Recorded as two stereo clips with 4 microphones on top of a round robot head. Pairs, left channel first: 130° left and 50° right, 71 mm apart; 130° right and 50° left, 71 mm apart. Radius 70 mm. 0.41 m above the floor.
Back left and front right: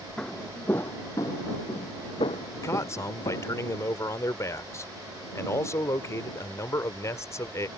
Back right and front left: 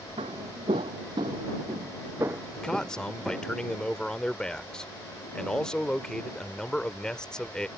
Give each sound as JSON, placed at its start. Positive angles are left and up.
{"t": 0.2, "sound": "footsteps", "azimuth_deg": 45}
{"t": 2.5, "sound": "a man speaking", "azimuth_deg": 155}